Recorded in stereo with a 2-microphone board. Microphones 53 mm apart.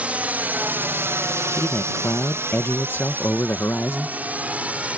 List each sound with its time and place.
0.0 s a drone: 25° right (ahead or behind)
1.5 s a man speaking: 45° left (ahead or behind)